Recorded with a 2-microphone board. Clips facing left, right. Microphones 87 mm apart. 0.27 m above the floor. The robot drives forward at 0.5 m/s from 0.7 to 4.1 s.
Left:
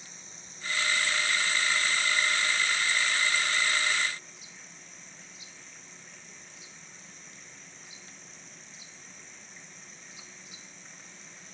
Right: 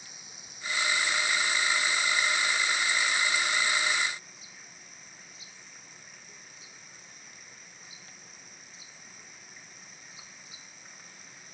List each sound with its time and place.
0.0 s running water: 10° right (ahead or behind)